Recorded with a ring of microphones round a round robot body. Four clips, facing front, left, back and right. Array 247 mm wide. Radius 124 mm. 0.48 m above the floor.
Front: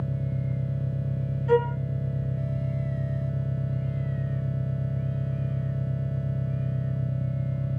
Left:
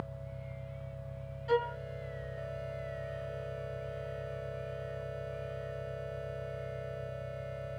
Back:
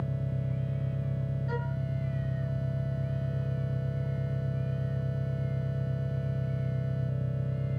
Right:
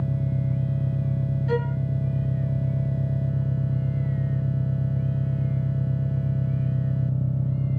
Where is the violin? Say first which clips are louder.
Right 2 dB, front 18 dB; 15° right.